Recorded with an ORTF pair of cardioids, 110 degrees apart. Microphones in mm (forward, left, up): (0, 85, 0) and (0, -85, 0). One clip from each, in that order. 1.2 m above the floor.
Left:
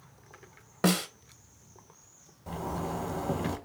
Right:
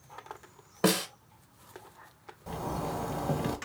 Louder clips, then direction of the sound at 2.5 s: Even; 10° right.